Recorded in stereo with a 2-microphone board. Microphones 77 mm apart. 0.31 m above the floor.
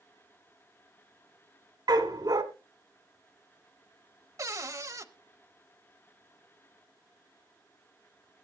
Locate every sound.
1.9 s a dog barking: 70° right (ahead or behind), 1.2 m
4.4 s a cupboard door: 40° right (ahead or behind), 0.8 m